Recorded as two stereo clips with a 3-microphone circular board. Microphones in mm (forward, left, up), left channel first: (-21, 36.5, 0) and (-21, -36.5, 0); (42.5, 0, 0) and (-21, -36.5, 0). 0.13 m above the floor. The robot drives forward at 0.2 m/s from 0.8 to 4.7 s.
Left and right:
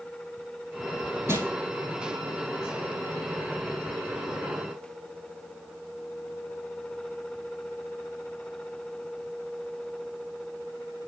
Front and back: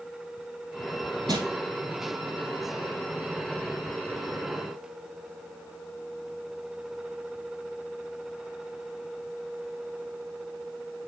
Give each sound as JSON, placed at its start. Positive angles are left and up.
{"t": 1.3, "sound": "crushing", "azimuth_deg": -140, "distance_m": 2.5}